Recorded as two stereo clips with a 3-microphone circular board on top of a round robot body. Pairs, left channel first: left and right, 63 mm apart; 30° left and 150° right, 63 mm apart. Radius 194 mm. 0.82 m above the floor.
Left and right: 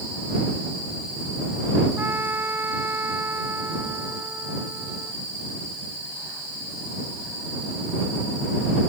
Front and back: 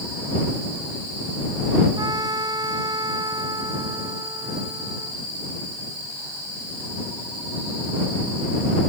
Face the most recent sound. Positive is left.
turn(degrees=-150)